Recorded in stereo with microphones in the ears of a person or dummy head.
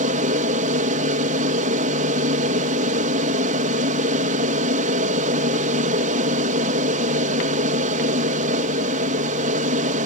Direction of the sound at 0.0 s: 45° right (ahead or behind).